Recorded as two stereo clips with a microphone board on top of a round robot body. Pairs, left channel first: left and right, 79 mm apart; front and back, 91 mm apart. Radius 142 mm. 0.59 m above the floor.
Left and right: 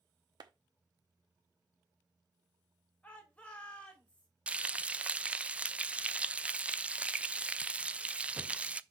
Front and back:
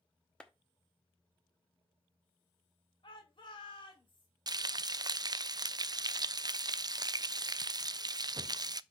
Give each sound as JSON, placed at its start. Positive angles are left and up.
{"t": 0.4, "sound": "a clap", "azimuth_deg": -80, "distance_m": 1.2}
{"t": 3.0, "sound": "a shout", "azimuth_deg": 15, "distance_m": 2.5}
{"t": 4.5, "sound": "frying", "azimuth_deg": -160, "distance_m": 0.5}